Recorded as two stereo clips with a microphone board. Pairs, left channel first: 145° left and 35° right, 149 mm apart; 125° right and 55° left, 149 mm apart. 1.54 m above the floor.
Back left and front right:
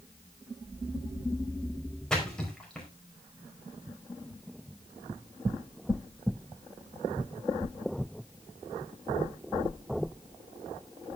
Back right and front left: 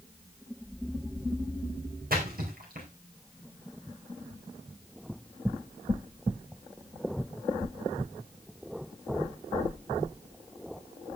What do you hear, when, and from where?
2.1 s a splash: 60° left, 4.5 m